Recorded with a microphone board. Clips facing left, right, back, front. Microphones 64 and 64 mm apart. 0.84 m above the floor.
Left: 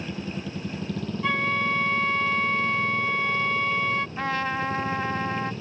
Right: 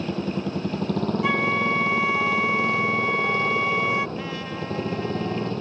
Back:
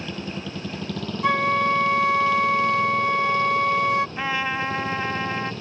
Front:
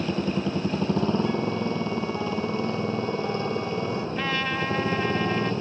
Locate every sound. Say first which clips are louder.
0.0 s a motorcycle: right 6 dB, front 6 dB; 60° right
1.2 s a flute: even, back 6 dB; 170° right
4.2 s a trumpet: left 4 dB, back 2 dB; 110° left